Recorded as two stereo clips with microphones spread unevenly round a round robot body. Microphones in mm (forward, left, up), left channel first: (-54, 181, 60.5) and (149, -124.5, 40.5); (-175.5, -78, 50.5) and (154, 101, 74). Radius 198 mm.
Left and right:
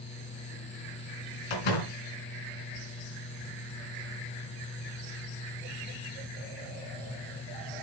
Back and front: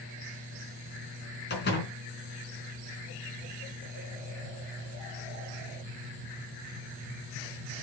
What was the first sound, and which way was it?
A door slam, 145° left.